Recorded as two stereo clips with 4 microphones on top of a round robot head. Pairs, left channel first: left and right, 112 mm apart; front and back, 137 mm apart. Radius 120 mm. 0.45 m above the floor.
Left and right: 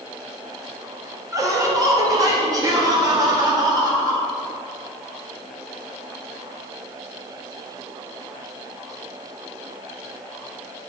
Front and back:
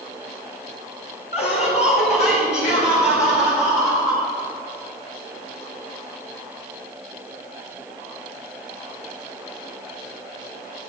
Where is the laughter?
35° right, 2.5 m.